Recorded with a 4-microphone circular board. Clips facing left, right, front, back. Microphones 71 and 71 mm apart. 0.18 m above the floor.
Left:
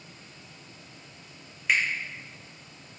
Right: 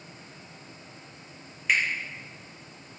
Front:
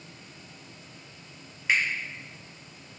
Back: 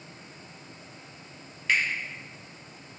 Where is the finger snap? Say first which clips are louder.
Even, even; 5° left, 1.0 m.